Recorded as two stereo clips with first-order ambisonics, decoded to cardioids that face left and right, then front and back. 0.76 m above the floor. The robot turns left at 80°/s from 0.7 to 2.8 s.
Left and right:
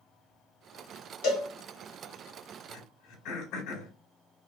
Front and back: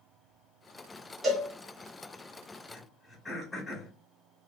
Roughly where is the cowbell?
Left.